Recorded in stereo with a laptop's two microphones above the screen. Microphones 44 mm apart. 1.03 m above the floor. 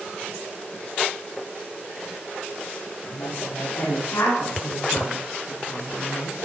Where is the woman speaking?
80° left, 5.5 m; by 6.4 s 85° left, 9 m.